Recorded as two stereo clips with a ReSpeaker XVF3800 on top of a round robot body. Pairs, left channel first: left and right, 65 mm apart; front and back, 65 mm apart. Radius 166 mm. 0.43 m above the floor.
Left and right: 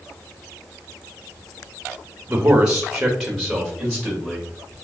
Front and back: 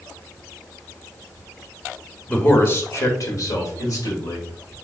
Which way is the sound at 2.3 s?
50° right.